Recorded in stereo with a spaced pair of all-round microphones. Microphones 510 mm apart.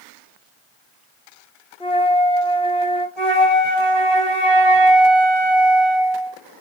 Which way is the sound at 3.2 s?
75° left (ahead or behind).